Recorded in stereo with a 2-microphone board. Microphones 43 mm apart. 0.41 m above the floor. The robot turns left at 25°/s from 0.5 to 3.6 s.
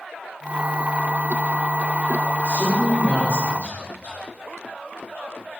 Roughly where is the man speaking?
Left.